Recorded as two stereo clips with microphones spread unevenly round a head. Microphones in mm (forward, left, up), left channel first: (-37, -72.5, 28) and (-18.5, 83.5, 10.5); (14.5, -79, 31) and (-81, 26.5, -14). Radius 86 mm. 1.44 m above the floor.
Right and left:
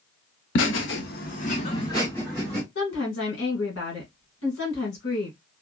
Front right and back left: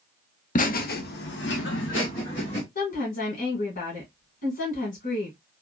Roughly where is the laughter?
Right.